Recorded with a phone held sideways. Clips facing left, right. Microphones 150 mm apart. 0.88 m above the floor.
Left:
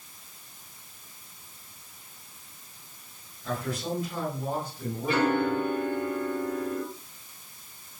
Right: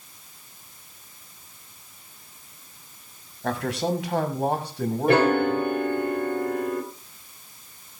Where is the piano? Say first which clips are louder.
Right 5 dB; 70° right (ahead or behind), 3.5 m.